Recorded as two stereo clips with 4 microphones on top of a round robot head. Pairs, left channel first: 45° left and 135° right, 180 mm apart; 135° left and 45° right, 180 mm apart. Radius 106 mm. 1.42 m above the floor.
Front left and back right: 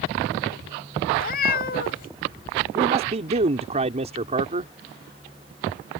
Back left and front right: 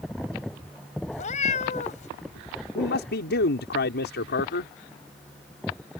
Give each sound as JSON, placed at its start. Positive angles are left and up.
{"t": 1.1, "sound": "a cat meowing", "azimuth_deg": 85}
{"t": 2.8, "sound": "a man speaking", "azimuth_deg": 170}